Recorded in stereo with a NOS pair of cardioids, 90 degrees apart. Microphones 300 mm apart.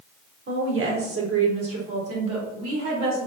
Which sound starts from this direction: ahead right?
A woman speaking, at 0.5 s.